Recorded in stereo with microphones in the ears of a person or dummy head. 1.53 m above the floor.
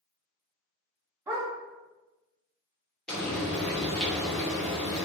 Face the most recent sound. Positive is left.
turn(degrees=5)  # may be behind; listen again after turning